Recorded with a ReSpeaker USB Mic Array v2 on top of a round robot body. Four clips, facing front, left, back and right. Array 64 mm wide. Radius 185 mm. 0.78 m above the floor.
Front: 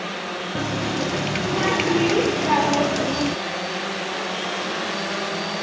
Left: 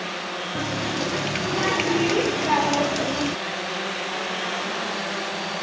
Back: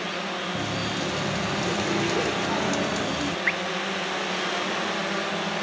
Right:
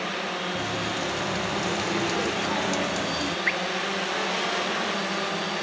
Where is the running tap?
40° left.